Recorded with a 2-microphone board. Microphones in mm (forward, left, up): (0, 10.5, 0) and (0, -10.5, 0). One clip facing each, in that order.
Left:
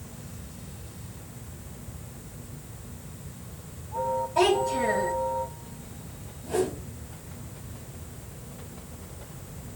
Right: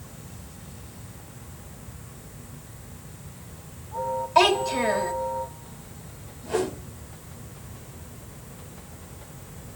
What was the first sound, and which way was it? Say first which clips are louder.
A child speaking: right 4 dB; 65° right (ahead or behind).